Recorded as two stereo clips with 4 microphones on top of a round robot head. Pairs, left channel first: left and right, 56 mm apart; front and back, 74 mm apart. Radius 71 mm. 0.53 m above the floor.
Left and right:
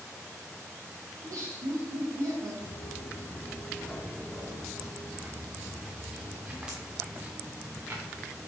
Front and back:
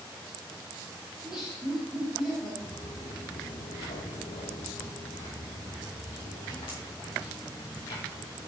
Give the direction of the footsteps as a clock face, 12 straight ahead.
10 o'clock.